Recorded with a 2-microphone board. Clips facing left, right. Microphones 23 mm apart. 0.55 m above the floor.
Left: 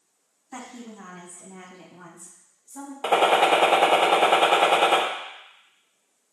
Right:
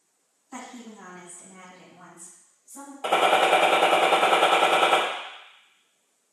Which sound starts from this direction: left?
A gunshot, at 3.0 s.